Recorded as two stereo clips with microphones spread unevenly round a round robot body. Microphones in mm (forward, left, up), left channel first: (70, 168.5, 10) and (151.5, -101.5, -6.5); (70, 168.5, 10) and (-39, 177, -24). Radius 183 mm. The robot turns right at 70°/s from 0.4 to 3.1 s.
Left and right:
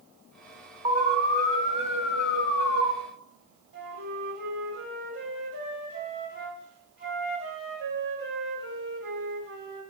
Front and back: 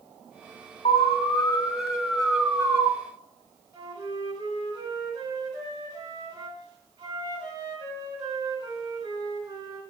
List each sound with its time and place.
0.8 s an alarm: straight ahead, 1.4 m; by 2.9 s 140° left, 1.4 m
3.7 s a flute: 120° right, 1.8 m